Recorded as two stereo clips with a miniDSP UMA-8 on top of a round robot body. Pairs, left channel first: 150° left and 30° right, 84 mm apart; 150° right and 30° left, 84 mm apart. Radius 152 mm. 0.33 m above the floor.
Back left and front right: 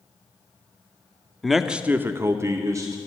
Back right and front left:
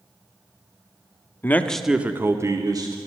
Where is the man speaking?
125° right, 0.9 m; by 3.0 s 10° left, 1.4 m.